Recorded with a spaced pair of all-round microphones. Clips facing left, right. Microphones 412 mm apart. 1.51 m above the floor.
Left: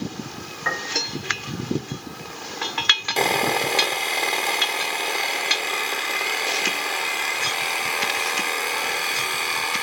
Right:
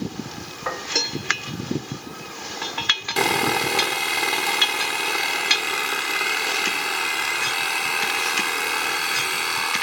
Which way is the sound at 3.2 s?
25° right (ahead or behind).